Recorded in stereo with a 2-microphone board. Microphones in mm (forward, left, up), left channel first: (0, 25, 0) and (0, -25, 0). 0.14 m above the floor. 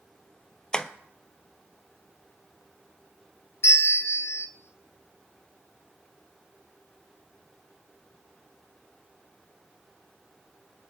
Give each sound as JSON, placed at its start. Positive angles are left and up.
{"t": 0.7, "sound": "tapping", "side_deg": 15, "distance_m": 0.7}
{"t": 3.6, "sound": "a bell", "side_deg": 60, "distance_m": 0.7}